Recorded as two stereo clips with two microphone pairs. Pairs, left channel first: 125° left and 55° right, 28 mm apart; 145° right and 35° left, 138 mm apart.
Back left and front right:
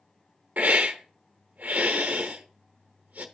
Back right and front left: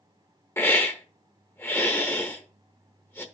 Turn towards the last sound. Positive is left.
turn(degrees=-70)